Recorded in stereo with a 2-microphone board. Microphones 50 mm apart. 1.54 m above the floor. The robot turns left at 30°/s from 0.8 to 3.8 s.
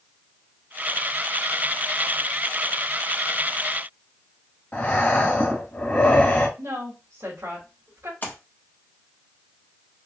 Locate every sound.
4.7 s breathing: 30° left (ahead or behind), 1.8 m
6.6 s a woman speaking: 65° right (ahead or behind), 2.5 m
8.2 s a splash: 40° left (ahead or behind), 1.3 m